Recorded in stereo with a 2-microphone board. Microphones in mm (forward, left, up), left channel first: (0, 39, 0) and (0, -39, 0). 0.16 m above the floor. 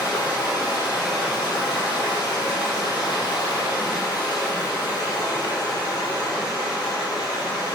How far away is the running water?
About 3 m.